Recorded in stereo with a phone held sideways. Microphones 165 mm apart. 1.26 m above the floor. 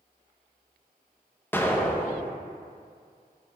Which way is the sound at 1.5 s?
10° left (ahead or behind).